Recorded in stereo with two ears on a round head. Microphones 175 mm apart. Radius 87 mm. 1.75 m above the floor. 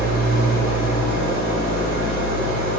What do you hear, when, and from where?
0.0 s an engine running: 65° right (ahead or behind), 3 m